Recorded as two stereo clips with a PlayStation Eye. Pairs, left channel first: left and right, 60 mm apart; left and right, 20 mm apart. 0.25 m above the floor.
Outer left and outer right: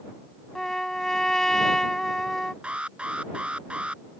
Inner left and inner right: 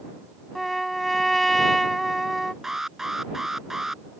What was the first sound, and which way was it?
A trumpet, 5° left (ahead or behind).